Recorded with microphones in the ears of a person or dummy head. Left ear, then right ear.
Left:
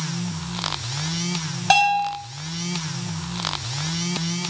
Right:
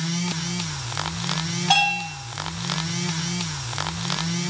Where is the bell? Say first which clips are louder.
Left 3 dB; 85° left, 7 m.